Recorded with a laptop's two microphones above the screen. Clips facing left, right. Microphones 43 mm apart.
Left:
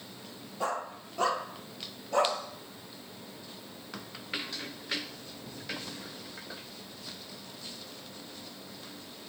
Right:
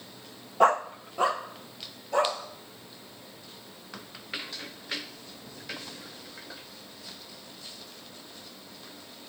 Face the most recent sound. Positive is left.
turn(degrees=0)  # may be behind; listen again after turning